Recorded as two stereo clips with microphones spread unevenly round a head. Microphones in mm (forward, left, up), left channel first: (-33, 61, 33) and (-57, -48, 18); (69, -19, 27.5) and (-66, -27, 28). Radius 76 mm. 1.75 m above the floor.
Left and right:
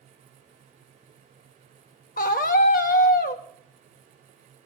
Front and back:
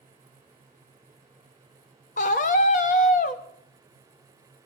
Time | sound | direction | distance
2.2 | a scream | 45° left | 0.7 m